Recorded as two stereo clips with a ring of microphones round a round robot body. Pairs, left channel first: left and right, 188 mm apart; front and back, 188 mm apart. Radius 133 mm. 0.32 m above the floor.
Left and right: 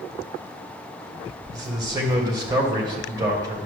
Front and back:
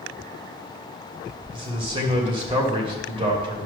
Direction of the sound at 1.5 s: 145° right.